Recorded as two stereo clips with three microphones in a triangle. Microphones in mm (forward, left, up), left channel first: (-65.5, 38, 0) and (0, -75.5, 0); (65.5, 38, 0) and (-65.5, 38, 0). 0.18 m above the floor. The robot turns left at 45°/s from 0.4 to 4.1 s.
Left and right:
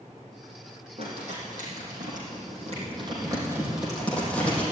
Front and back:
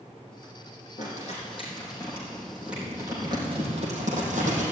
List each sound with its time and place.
1.0 s crumpling: 20° right, 5 m; by 4.6 s 160° right, 5 m